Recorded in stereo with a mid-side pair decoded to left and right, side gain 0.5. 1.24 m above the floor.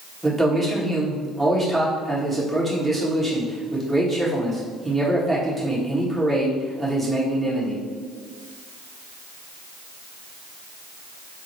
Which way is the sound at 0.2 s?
Straight ahead.